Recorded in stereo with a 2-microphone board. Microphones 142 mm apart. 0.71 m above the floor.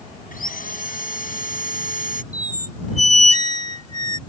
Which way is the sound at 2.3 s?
55° right (ahead or behind).